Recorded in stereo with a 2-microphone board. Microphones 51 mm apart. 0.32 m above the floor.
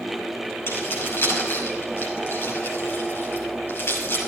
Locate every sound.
0.7 s keys jangling: 55° left (ahead or behind), 6 m